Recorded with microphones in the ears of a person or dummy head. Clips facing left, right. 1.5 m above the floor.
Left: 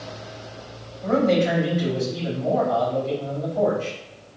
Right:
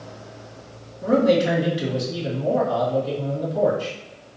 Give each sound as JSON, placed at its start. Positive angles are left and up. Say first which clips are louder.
{"t": 1.0, "sound": "a man speaking", "louder": "right 2 dB", "side_deg": -55, "distance_m": 1.8}